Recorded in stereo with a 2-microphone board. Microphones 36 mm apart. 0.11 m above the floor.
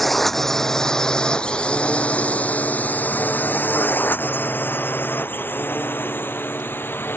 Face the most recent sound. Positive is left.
turn(degrees=80)